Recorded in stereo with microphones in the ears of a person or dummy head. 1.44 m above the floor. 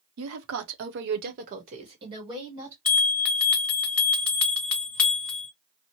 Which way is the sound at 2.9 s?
5° left (ahead or behind).